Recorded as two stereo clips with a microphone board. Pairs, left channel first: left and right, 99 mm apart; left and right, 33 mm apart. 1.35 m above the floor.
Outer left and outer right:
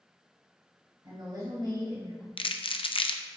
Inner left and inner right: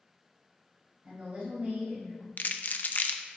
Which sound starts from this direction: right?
A woman speaking, at 1.0 s.